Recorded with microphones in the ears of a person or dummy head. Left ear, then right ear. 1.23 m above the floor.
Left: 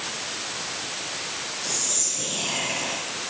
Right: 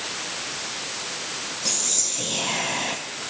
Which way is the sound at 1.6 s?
35° right (ahead or behind).